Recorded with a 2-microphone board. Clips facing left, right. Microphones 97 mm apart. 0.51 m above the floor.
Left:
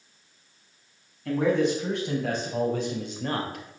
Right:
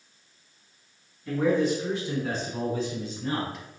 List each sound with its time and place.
1.2 s a man speaking: 75° left (ahead or behind), 3.5 m; by 3.7 s 55° left (ahead or behind), 1.4 m